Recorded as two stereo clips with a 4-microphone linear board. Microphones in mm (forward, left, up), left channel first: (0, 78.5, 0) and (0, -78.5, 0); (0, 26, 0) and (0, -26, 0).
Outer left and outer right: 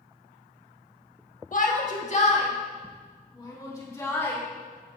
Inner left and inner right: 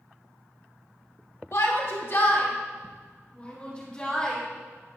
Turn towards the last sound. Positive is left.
turn(degrees=15)  # may be behind; listen again after turning